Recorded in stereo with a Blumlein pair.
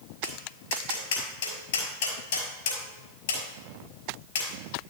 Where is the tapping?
55° left, 4.5 m.